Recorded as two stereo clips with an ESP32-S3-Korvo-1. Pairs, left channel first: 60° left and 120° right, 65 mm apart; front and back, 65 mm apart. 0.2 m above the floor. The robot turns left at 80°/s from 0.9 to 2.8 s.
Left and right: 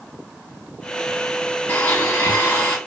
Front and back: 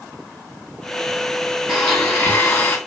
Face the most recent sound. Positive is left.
turn(degrees=15)